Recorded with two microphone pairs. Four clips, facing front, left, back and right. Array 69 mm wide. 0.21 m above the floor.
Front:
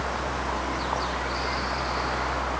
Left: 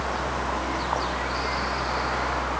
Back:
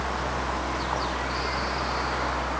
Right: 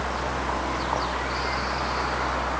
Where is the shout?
I don't hear a shout.